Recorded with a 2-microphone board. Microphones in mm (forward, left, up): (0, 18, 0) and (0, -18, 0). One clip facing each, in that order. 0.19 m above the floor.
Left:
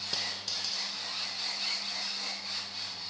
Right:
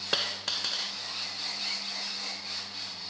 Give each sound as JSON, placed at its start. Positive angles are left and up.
{"t": 0.1, "sound": "a dropped coin", "side_deg": -60, "distance_m": 0.7}